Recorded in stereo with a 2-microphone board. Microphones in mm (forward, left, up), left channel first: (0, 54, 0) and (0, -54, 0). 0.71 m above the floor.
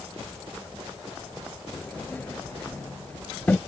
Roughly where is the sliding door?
Centre.